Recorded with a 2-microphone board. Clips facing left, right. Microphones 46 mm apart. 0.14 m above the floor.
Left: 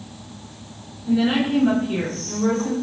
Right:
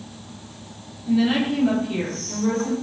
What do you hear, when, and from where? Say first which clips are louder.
1.1 s a woman speaking: left 1 dB; 10° left (ahead or behind), 1.1 m; by 2.7 s 50° left (ahead or behind), 1.6 m